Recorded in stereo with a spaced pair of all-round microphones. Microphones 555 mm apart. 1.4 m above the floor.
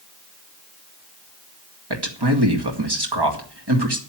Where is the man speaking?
45° right (ahead or behind), 2 m.